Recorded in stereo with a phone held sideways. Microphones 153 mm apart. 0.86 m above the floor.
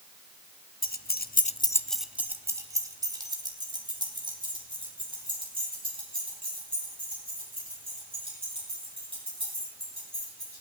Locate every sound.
0.8 s keys jangling: 75° left (ahead or behind), 0.8 m; by 10.6 s 35° right (ahead or behind), 9.5 m